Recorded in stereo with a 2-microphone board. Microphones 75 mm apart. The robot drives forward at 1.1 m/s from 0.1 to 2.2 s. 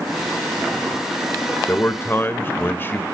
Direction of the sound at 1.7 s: 30° left (ahead or behind).